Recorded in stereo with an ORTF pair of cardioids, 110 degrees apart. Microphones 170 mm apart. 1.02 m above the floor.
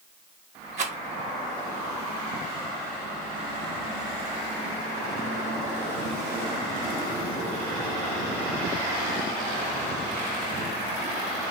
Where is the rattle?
40° right, 0.8 m.